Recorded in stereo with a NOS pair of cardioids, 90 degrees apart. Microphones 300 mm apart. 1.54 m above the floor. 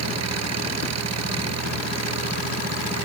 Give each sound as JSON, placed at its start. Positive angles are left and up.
{"t": 0.0, "sound": "an engine running", "azimuth_deg": -60}